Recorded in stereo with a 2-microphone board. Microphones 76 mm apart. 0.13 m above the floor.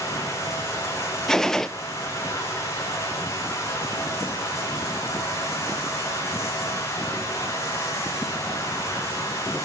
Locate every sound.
0.0 s running water: 40° left (ahead or behind), 8 m
1.3 s a gunshot: 5° left (ahead or behind), 0.5 m